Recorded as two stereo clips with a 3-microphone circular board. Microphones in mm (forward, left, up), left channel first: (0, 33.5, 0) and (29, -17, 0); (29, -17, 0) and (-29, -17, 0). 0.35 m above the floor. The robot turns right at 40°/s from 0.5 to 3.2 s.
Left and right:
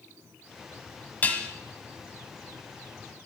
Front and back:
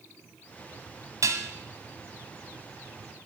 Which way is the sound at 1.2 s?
175° left.